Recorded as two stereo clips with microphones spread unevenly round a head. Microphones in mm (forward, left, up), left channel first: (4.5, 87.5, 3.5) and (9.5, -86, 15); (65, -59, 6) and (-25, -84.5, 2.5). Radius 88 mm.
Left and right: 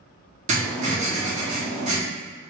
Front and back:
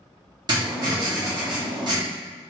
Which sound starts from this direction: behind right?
Writing, at 0.5 s.